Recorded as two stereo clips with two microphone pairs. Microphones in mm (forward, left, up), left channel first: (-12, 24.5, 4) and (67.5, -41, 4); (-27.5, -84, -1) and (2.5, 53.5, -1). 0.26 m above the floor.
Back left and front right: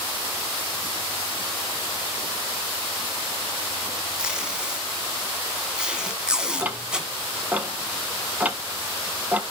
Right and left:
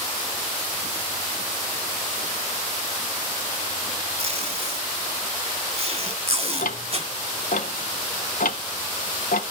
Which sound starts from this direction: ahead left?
Tape being pulled, at 4.2 s.